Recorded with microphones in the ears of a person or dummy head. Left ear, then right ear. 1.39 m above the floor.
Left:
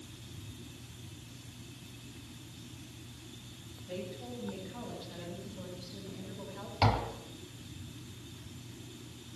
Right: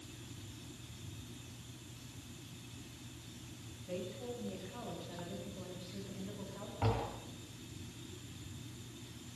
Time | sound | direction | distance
3.9 | a woman speaking | 20° right (ahead or behind) | 8 m
6.8 | tapping | 65° left (ahead or behind) | 3 m